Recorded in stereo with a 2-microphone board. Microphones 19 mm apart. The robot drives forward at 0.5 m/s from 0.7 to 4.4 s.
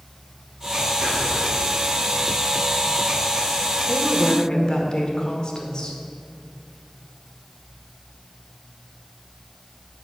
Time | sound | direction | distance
1.0 | whispering | 60° right (ahead or behind) | 1.8 m
3.9 | a woman speaking | 50° left (ahead or behind) | 1.4 m